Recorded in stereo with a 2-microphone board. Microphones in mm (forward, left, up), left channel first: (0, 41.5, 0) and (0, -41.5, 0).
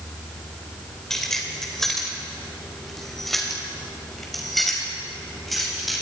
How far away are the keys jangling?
About 4.5 m.